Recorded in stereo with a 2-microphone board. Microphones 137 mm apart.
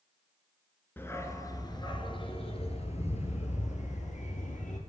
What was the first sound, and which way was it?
A dog barking, 15° left (ahead or behind).